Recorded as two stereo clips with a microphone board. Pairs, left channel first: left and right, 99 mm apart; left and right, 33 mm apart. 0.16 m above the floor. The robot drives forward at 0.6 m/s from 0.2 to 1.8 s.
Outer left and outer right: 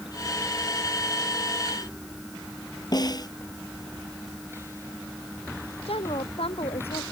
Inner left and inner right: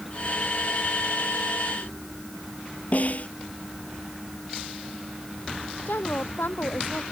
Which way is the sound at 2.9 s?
45° left (ahead or behind).